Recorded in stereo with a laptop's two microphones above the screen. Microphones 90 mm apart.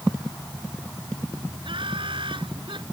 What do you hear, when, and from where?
1.6 s laughter: 70° right (ahead or behind)